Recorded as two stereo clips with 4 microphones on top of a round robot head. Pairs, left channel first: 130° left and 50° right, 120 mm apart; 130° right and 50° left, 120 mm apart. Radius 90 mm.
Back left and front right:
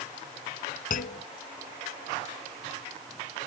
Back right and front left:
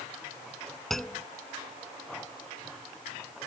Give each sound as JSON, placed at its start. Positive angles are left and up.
{"t": 0.9, "sound": "a clunk", "azimuth_deg": 140}